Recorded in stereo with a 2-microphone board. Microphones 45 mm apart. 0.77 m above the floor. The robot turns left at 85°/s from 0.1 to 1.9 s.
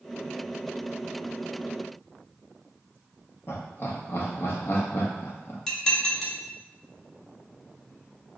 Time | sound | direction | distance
3.5 | laughter | 55° left (ahead or behind) | 0.9 m
5.7 | dishes clattering | 15° left (ahead or behind) | 0.9 m